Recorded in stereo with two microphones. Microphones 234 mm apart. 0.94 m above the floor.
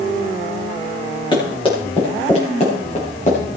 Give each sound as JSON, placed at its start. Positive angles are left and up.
{"t": 1.3, "sound": "running footsteps", "side_deg": 20, "distance_m": 8.5}